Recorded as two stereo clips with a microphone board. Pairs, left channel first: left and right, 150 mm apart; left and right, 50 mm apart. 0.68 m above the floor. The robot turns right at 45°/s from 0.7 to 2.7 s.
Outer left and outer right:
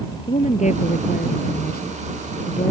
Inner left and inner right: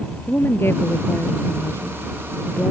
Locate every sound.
0.3 s a woman speaking: 50° left; by 2.7 s 140° left